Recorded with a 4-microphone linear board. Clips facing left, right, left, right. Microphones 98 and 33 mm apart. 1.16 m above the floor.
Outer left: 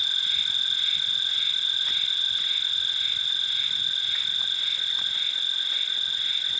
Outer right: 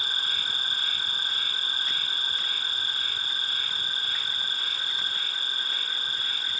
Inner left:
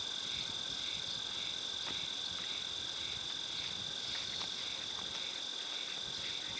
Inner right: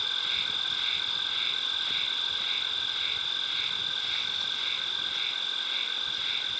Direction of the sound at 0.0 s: 50° right (ahead or behind).